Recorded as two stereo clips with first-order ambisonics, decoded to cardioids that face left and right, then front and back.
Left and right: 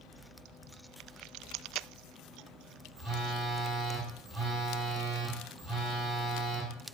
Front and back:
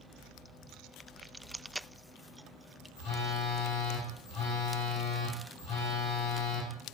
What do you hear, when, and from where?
3.0 s a phone buzzing: straight ahead, 1.9 m